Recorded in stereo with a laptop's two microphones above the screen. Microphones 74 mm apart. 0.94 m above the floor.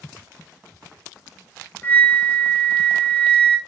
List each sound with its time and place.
1.8 s a flute: 25° left (ahead or behind), 0.9 m